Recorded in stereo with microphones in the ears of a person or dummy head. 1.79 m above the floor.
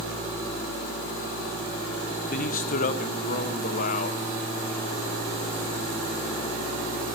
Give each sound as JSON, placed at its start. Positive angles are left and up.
{"t": 2.3, "sound": "a man speaking", "side_deg": 50, "distance_m": 1.6}